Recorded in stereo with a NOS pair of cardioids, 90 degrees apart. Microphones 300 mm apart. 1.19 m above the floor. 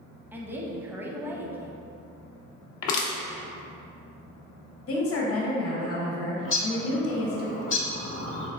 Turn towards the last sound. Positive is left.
turn(degrees=45)